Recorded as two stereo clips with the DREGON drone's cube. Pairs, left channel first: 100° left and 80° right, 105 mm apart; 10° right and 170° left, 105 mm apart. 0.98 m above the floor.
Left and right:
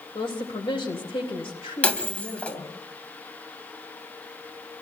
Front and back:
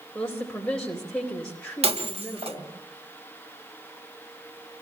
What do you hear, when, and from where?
0.1 s a woman speaking: 70° left, 4 m
1.8 s breaking glass: 175° left, 2 m